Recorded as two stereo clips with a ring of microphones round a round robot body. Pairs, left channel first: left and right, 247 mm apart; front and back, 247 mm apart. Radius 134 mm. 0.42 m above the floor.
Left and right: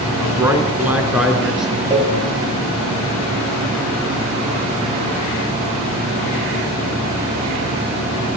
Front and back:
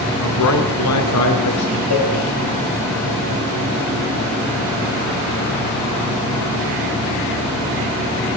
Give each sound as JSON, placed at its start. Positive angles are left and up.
{"t": 0.2, "sound": "a man speaking", "azimuth_deg": -15, "distance_m": 3.5}
{"t": 1.9, "sound": "a cowbell", "azimuth_deg": -10, "distance_m": 6.5}